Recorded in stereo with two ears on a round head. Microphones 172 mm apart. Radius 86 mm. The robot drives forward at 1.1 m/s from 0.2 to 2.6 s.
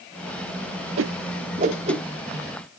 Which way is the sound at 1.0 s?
80° right.